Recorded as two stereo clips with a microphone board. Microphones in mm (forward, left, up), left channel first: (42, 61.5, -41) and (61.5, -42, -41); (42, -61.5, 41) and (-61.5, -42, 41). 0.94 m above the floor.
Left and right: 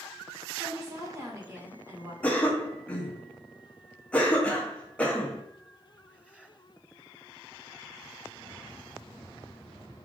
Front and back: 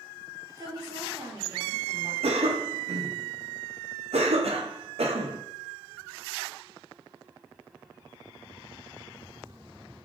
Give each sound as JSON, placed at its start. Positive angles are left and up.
{"t": 0.6, "sound": "a woman speaking", "azimuth_deg": -140, "distance_m": 2.0}
{"t": 2.2, "sound": "a cough", "azimuth_deg": 175, "distance_m": 0.8}